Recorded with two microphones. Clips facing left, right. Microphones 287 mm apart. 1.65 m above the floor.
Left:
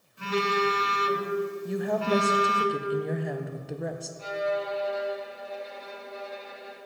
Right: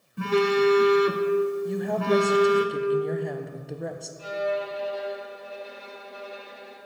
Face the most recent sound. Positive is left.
turn(degrees=-40)  # may be behind; listen again after turning